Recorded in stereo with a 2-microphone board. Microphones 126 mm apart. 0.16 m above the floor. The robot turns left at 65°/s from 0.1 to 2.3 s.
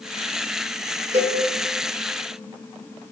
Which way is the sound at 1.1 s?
70° right (ahead or behind).